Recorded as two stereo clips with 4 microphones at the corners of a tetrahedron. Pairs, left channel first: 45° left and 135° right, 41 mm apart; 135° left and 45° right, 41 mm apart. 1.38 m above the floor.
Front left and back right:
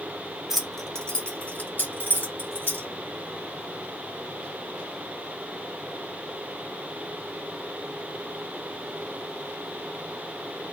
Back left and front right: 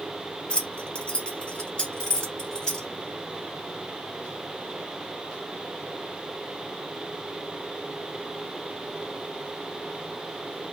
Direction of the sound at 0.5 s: 150° left.